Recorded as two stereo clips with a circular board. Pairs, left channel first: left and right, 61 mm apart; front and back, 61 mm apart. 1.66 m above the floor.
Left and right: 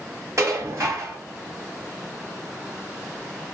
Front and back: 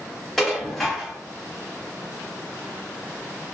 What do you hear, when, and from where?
0.4 s dishes clattering: 85° right, 1.4 m